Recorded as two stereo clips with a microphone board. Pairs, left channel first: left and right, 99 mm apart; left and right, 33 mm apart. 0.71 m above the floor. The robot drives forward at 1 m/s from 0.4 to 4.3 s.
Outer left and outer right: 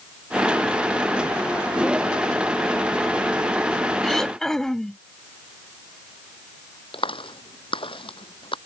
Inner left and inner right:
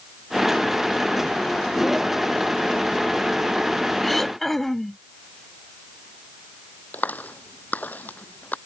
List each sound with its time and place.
4.0 s throat clearing: 5° left (ahead or behind)
6.9 s a clap: 60° left (ahead or behind)